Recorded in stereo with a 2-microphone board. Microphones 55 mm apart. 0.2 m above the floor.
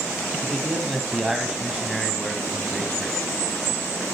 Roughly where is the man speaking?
Centre.